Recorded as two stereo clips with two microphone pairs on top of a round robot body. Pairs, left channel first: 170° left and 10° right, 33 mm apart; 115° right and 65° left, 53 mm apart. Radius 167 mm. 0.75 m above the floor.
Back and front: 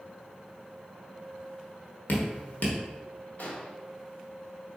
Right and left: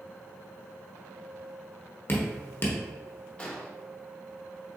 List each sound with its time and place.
2.1 s dripping: 165° right, 1.1 m
3.4 s an explosion: 175° left, 1.5 m